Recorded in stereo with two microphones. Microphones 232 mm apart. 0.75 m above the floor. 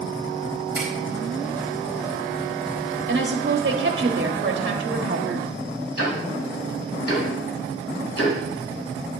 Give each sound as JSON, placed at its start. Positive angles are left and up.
{"t": 0.8, "sound": "a finger snap", "side_deg": -5, "distance_m": 3.5}
{"t": 3.1, "sound": "a woman speaking", "side_deg": -55, "distance_m": 1.4}
{"t": 6.0, "sound": "ticking", "side_deg": 85, "distance_m": 2.5}